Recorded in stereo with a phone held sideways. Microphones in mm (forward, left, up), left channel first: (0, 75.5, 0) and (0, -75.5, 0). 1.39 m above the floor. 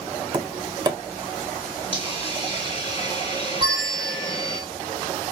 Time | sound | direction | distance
0.3 | tapping | 25° right (ahead or behind) | 0.5 m
1.9 | a hiss | 35° left (ahead or behind) | 1.6 m
3.6 | a bell | 40° right (ahead or behind) | 1.6 m